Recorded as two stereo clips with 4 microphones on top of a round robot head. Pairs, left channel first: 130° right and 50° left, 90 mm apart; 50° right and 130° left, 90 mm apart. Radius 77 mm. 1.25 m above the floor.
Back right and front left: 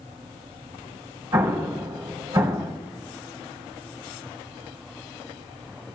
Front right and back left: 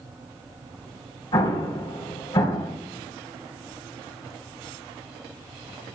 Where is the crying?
No crying in this recording.